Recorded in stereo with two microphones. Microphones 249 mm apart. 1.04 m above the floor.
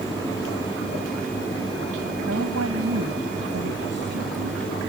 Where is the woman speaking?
85° right.